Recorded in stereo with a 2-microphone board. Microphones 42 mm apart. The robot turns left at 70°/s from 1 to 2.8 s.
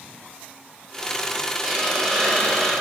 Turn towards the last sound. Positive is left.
turn(degrees=115)